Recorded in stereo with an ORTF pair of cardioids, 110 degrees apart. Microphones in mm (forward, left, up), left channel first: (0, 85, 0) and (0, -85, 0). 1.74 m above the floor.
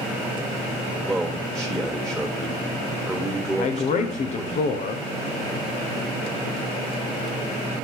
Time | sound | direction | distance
1.1 | a man speaking | straight ahead | 2 m
3.6 | a man speaking | 50° left | 0.9 m